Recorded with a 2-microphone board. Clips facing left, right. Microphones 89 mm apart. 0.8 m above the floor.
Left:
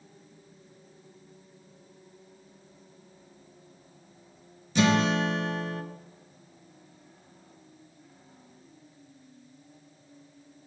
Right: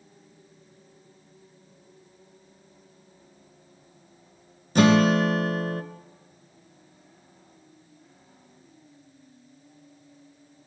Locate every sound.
4.8 s a guitar: 50° right (ahead or behind), 0.9 m